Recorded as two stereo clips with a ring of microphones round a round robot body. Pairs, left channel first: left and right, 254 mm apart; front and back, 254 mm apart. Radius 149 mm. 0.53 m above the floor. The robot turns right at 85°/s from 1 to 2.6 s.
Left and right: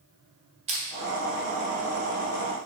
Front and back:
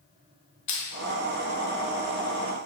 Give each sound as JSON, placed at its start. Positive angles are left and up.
{"t": 0.7, "sound": "crushing", "azimuth_deg": -25, "distance_m": 0.7}